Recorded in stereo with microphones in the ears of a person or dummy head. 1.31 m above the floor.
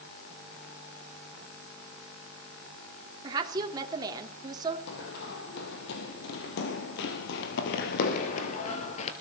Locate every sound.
3.2 s a woman speaking: 20° right (ahead or behind), 3 m
4.9 s running footsteps: 60° left (ahead or behind), 3 m; by 9.1 s 40° left (ahead or behind), 1.8 m